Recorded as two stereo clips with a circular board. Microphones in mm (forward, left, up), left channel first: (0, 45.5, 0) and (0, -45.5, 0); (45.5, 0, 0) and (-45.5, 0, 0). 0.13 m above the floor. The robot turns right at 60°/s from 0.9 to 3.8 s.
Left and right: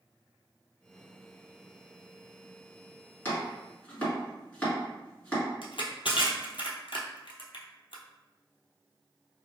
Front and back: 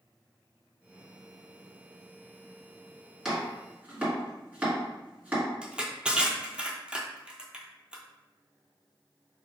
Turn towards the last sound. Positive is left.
turn(degrees=100)